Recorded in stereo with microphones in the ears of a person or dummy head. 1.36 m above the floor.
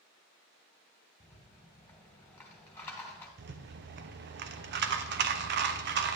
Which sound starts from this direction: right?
A rattle, at 3.4 s.